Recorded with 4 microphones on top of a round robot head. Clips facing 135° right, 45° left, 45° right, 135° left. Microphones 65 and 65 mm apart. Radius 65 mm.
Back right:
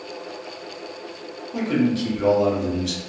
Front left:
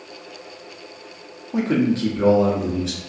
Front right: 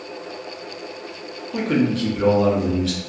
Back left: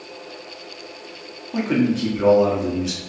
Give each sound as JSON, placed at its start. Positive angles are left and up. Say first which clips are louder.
{"t": 1.5, "sound": "a man speaking", "louder": "front left 2 dB, even", "azimuth_deg": 70, "distance_m": 0.9}